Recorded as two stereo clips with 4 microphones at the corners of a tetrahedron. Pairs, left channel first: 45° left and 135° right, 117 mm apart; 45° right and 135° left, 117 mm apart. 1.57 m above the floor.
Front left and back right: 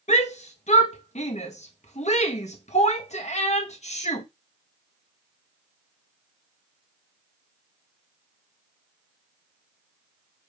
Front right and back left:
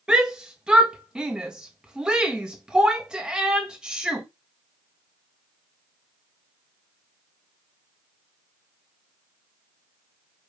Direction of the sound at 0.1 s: 55° left.